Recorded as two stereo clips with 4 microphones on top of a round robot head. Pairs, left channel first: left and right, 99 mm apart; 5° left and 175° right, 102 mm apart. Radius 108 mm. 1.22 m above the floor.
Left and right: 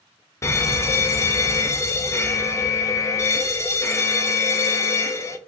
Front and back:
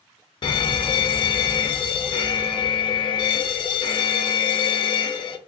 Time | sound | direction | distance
0.4 | an alarm | 30° left | 0.6 m